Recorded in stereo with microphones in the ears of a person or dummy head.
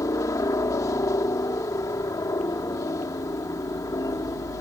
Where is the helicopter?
15° left (ahead or behind).